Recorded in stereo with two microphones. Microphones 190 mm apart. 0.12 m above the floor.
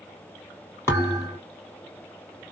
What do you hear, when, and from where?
0.9 s a thud: 15° left (ahead or behind), 3.5 m